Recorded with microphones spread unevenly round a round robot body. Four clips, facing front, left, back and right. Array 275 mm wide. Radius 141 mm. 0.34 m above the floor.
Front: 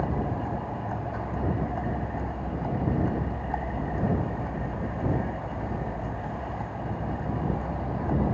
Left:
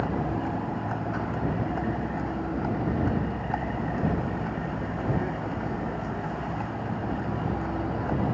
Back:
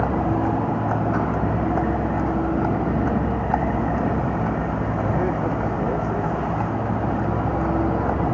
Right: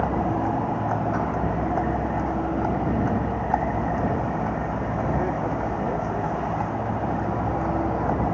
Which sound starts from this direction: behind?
A vehicle, at 0.0 s.